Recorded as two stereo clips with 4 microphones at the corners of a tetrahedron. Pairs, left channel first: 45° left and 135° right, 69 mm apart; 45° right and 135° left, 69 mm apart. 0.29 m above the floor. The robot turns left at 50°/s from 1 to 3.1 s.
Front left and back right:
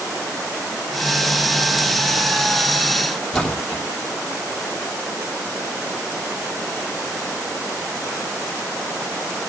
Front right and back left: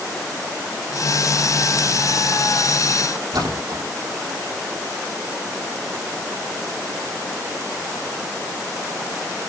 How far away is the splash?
About 5.5 m.